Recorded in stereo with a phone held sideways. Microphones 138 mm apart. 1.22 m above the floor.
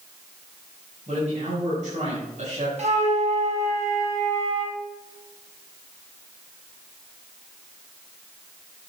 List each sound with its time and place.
1.1 s a man speaking: 65° right (ahead or behind), 5.5 m
2.8 s a flute: 55° right (ahead or behind), 2.5 m